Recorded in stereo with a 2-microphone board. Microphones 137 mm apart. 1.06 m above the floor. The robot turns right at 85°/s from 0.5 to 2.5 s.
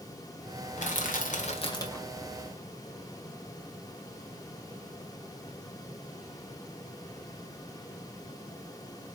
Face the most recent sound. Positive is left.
turn(degrees=-150)